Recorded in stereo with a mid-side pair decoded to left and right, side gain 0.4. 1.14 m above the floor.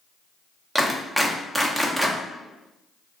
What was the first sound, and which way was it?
A clap, 10° right.